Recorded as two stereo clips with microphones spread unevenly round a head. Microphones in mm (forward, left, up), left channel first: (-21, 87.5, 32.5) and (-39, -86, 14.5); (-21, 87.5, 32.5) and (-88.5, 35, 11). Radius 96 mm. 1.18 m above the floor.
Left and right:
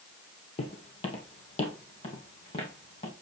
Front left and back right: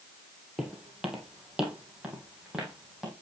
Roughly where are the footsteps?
Behind left.